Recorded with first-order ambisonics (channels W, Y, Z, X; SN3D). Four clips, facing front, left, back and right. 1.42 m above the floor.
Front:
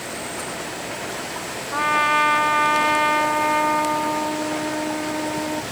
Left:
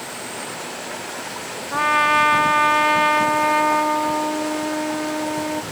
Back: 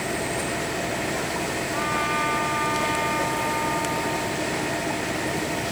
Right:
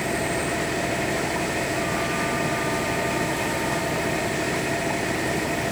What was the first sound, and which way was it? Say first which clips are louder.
An engine running: right 6 dB, back 3 dB; 115° right.